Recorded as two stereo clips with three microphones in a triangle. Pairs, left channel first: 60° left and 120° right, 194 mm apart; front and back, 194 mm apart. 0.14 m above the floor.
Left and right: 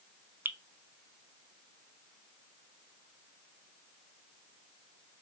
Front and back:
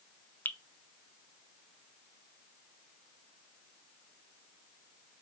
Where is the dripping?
60° right, 0.5 m.